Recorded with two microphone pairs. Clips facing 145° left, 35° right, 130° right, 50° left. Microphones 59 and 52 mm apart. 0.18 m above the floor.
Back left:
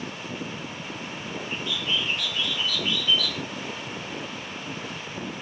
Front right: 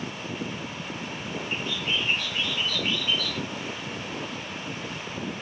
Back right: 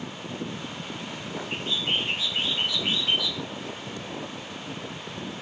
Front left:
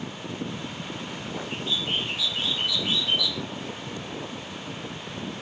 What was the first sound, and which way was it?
A bird, 85° right.